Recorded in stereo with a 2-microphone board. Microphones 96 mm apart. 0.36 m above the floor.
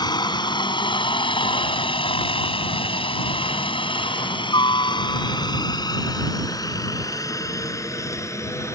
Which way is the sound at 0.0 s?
45° left (ahead or behind).